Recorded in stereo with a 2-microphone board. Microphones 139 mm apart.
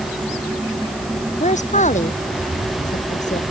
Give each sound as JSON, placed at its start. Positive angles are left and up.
{"t": 1.4, "sound": "a woman speaking", "side_deg": 60}